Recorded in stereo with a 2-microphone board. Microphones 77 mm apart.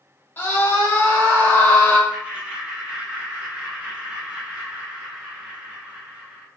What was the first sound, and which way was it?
A scream, 30° left (ahead or behind).